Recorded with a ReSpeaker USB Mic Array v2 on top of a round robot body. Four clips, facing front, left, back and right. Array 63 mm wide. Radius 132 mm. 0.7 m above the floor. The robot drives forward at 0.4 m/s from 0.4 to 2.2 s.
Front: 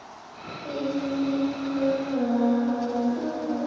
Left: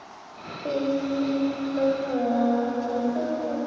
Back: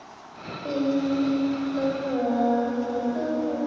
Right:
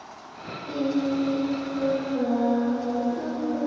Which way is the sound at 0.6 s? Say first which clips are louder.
Even, back 4 dB; 115° left.